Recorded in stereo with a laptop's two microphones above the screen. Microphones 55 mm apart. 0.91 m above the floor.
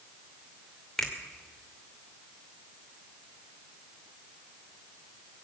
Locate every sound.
1.0 s a finger snap: 10° left (ahead or behind), 2.5 m